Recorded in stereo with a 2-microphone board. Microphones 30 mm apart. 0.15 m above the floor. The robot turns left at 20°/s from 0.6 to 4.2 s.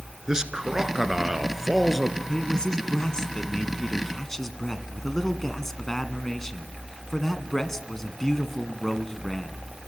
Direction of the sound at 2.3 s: 25° left (ahead or behind).